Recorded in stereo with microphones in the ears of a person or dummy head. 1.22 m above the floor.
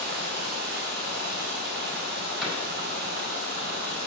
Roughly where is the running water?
Right.